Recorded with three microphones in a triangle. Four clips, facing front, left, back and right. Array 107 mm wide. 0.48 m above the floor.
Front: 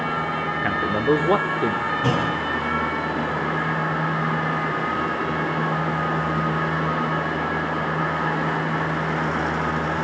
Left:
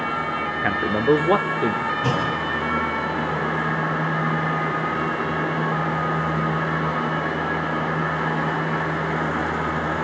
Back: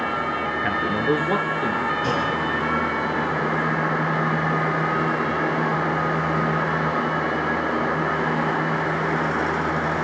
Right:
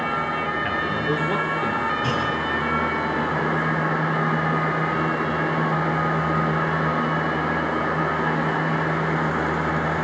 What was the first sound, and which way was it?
A man speaking, 90° left.